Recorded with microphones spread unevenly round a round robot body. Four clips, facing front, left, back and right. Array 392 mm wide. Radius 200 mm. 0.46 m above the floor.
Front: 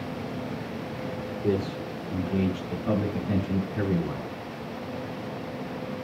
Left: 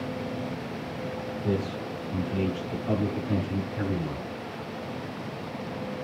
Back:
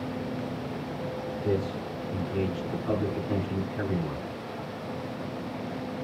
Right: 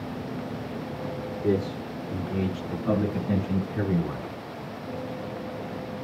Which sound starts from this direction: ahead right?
A man speaking, at 1.4 s.